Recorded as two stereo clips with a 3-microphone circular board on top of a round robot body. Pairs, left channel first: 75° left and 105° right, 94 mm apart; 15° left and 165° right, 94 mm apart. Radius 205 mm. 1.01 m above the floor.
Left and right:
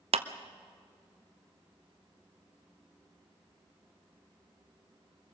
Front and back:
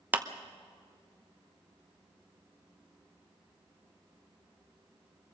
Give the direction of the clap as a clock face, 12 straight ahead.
3 o'clock.